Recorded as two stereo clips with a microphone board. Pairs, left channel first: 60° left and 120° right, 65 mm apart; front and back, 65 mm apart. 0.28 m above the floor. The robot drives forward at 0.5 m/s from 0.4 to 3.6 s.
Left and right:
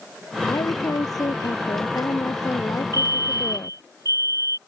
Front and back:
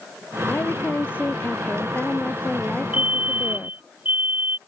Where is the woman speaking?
55° left; by 3.8 s 65° left.